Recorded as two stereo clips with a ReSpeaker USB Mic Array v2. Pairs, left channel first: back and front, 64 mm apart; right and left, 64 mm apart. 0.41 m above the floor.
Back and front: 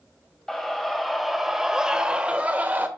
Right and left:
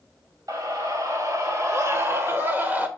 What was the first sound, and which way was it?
A scream, 95° left.